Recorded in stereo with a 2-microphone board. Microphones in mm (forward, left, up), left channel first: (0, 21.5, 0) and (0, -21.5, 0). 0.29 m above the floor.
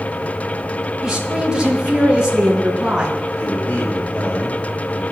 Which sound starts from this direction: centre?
A woman speaking, at 1.0 s.